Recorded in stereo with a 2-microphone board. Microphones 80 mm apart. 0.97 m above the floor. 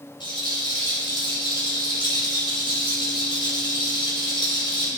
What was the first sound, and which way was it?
A rattle, 90° left.